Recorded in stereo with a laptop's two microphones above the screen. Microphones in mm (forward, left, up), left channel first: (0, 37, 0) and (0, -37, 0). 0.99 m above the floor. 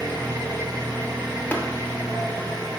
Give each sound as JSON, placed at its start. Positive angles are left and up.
{"t": 0.0, "sound": "an engine running", "side_deg": -65, "distance_m": 1.3}
{"t": 1.5, "sound": "tapping", "side_deg": 20, "distance_m": 0.6}